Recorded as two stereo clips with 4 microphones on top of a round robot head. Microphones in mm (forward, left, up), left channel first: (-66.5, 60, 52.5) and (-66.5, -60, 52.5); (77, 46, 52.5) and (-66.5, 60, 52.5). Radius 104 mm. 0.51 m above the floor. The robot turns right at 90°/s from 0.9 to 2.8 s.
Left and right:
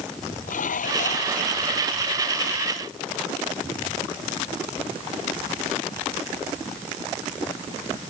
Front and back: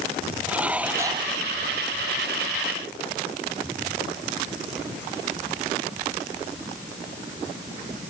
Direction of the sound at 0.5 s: 95° left.